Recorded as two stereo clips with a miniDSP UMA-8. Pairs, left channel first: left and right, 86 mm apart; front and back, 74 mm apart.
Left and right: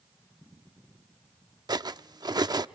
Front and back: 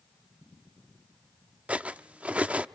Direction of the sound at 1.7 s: 110° right.